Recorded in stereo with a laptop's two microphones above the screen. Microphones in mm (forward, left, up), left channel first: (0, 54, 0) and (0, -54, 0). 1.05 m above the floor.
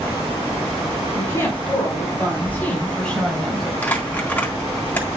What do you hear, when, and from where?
1.1 s a woman speaking: 25° left (ahead or behind), 5 m; by 3.7 s centre (ahead or behind), 4 m
3.8 s crumpling: 20° left (ahead or behind), 4 m